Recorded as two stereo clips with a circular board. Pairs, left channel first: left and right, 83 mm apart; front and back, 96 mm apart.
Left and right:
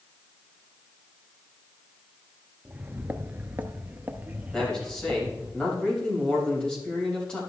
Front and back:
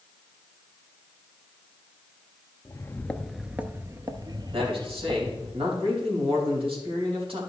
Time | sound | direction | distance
2.6 | footsteps | 25° right | 0.6 m
4.5 | a man speaking | 170° left | 3.5 m